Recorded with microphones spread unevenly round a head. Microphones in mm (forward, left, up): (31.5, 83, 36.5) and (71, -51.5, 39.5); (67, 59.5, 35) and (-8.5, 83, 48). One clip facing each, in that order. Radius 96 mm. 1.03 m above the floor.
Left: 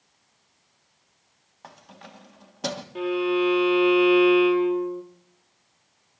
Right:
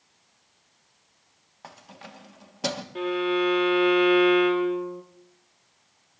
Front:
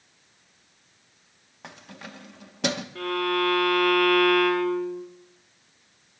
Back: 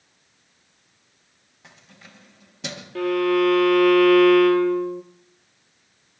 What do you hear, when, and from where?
1.6 s keys jangling: 15° left, 1.3 m
3.0 s a violin: 165° right, 1.2 m